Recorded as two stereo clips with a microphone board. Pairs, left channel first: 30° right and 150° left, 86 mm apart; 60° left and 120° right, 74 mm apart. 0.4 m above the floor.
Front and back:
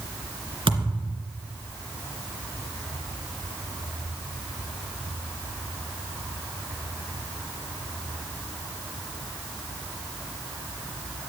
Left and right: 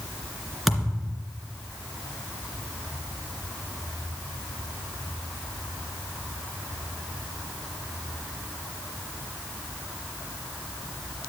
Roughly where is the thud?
Behind left.